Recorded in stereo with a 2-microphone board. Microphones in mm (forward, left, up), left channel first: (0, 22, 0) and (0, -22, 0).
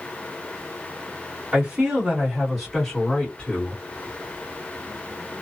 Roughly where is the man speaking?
Right.